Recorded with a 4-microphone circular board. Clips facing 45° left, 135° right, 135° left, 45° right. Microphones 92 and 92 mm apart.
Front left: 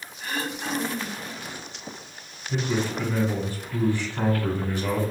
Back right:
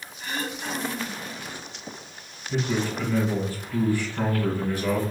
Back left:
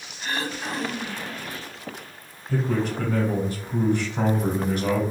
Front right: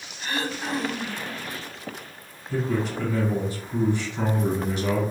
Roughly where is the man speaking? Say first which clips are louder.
Even, back left 1 dB; left.